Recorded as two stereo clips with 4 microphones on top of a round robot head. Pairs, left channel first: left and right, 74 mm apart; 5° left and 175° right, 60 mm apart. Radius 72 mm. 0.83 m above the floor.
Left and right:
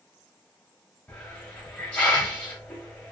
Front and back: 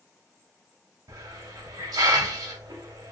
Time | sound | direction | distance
1.1 | a hiss | 170° left | 0.7 m